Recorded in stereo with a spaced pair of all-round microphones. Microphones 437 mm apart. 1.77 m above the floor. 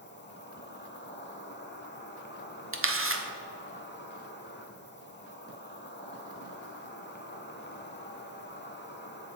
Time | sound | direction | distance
0.0 | an insect | 25° left (ahead or behind) | 0.8 m
2.7 | a camera shutter | 30° right (ahead or behind) | 0.7 m